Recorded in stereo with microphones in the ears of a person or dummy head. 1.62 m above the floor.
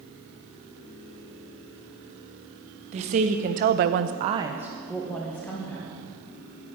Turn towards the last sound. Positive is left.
turn(degrees=15)  # may be behind; listen again after turning